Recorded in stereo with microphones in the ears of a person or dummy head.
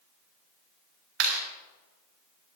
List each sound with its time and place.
1.2 s a clap: 70° right (ahead or behind), 3.5 m